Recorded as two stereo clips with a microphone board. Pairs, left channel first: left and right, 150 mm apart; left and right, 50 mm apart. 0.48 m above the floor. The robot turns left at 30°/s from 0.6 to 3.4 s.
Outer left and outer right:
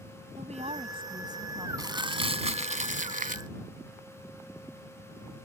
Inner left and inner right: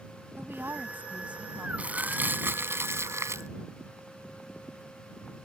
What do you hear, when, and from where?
0.4 s a woman speaking: 130° right; by 1.7 s 165° right
1.8 s crumpling: 25° right; by 3.5 s 75° right